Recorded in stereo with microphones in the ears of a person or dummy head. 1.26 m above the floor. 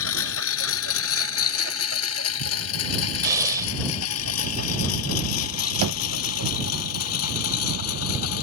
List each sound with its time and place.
0.0 s a lawn mower: 80° left; by 8.4 s 85° left
3.2 s breathing: 20° right (ahead or behind)
5.8 s knocking: 80° right